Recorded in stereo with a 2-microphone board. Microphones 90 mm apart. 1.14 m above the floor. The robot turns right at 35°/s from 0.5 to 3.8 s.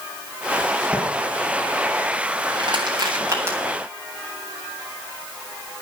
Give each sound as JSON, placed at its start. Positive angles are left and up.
{"t": 0.9, "sound": "tapping", "side_deg": -20, "distance_m": 5.5}
{"t": 2.6, "sound": "crushing", "side_deg": -55, "distance_m": 9.0}